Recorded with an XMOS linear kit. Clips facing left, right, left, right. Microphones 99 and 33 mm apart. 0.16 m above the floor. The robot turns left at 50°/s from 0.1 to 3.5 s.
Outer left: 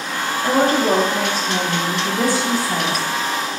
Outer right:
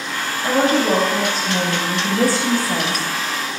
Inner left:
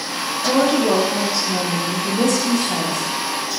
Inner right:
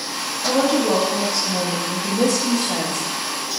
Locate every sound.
0.4 s a woman speaking: 60° left, 5 m; by 3.1 s 75° right, 5 m